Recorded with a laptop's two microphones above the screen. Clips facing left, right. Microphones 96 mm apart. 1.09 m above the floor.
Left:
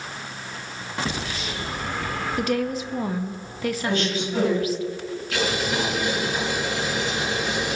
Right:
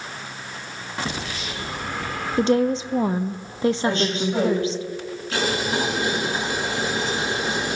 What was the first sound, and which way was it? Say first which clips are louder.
A woman speaking: right 7 dB; 30° right (ahead or behind).